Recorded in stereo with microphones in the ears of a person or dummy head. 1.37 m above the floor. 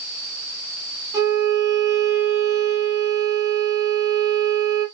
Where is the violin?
20° right (ahead or behind), 5 m.